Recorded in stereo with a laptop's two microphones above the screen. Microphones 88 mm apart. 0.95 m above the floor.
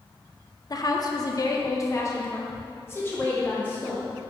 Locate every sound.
0.7 s a woman speaking: 45° left (ahead or behind), 0.6 m; by 4.0 s 20° left (ahead or behind), 1.9 m